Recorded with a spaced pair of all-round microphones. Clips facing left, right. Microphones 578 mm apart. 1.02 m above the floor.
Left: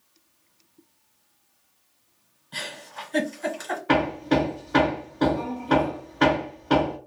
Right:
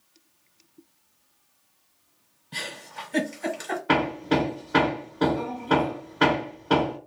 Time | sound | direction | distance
2.5 | a giggle | 45° right (ahead or behind) | 1.2 m
3.9 | hammering | 5° right (ahead or behind) | 1.2 m